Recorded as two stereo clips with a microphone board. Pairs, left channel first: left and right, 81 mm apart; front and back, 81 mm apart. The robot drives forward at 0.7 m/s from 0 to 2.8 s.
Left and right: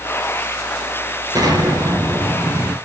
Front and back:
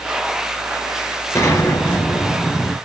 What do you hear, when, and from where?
1.4 s an explosion: 55° right, 3 m; by 2.8 s 70° right, 2.5 m